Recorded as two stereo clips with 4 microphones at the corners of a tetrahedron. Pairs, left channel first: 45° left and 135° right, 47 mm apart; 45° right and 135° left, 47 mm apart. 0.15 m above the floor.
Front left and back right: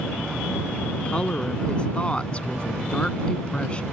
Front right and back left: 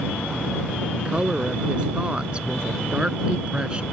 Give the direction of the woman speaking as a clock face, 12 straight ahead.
9 o'clock.